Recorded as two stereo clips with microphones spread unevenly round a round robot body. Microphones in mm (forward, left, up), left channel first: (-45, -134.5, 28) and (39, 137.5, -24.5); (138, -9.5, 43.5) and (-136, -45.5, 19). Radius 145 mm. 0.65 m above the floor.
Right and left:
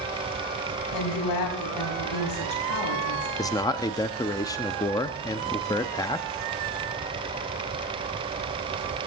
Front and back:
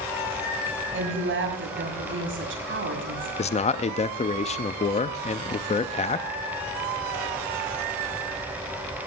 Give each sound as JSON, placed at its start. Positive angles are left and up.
{"t": 0.9, "sound": "a woman speaking", "azimuth_deg": -125, "distance_m": 5.5}
{"t": 3.4, "sound": "a man speaking", "azimuth_deg": -20, "distance_m": 0.5}